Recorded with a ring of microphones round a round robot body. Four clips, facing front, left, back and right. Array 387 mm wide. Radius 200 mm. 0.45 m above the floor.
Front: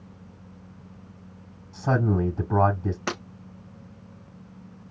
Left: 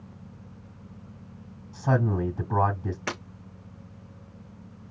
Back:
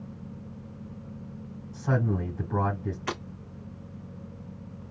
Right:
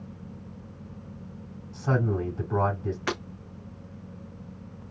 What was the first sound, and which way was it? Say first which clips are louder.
A man speaking: left 1 dB, front 4 dB; 25° left.